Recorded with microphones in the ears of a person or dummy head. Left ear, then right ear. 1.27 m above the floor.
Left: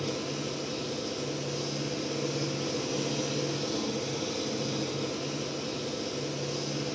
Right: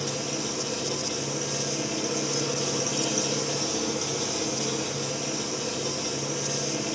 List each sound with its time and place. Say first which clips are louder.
0.0 s an engine running: right 3 dB; 55° right (ahead or behind), 1.5 m